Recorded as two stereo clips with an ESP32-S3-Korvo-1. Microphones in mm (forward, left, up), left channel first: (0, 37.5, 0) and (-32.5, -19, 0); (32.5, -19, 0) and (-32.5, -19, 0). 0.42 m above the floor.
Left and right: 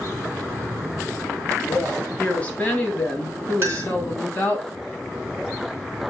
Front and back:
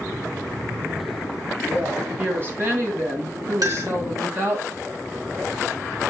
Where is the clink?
170° right, 4 m.